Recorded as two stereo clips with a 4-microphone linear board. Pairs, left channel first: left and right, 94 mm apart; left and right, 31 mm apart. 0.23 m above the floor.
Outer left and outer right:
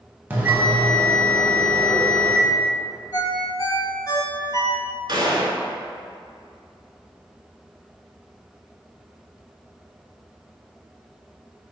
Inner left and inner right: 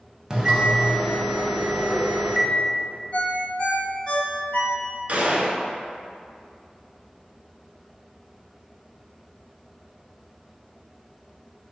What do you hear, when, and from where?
0.3 s a bell: 20° right (ahead or behind), 0.7 m
3.1 s a ringtone: 40° left (ahead or behind), 0.8 m
5.1 s a gunshot: 50° right (ahead or behind), 0.6 m